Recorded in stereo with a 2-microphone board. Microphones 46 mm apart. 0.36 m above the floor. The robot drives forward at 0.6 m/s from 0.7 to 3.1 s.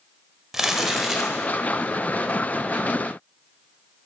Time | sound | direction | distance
0.5 | crumpling | 10° right (ahead or behind) | 0.7 m